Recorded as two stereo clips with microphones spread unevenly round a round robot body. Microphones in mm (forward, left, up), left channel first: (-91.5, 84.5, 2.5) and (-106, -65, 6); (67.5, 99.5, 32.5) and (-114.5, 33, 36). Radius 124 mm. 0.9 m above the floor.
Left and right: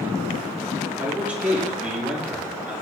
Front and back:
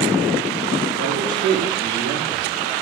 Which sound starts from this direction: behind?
A man speaking, at 1.0 s.